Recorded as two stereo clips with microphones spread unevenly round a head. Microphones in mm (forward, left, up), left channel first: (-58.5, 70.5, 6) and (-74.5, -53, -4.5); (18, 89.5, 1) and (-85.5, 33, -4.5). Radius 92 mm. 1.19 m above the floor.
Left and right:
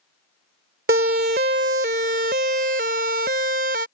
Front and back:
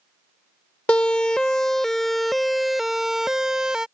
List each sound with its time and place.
0.9 s a siren: 55° right; by 3.9 s 65° right